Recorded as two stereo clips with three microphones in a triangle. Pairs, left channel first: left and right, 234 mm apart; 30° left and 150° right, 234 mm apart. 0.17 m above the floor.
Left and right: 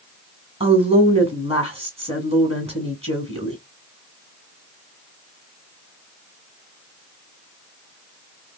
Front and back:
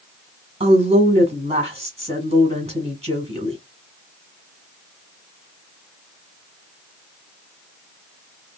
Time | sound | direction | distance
0.6 | a woman speaking | 120° right | 1.5 m